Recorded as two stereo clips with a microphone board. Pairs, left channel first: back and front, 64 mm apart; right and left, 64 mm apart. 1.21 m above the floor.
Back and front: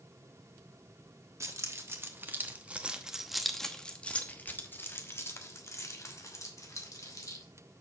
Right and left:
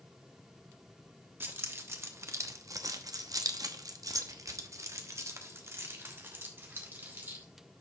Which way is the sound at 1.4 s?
35° left.